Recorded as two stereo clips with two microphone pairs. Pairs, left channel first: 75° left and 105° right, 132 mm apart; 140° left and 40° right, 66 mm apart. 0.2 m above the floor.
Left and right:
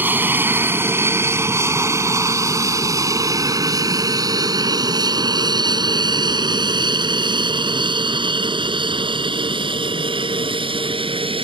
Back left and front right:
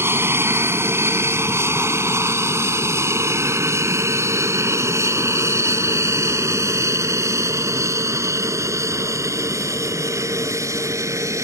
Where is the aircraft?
40° right; by 11.4 s 65° right.